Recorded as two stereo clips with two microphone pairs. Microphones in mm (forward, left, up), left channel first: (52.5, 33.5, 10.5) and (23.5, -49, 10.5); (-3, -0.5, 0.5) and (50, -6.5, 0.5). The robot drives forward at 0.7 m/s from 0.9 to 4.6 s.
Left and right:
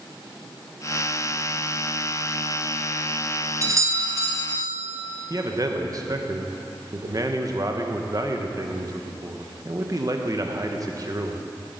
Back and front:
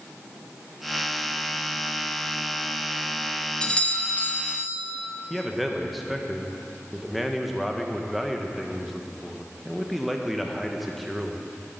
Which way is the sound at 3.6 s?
120° right.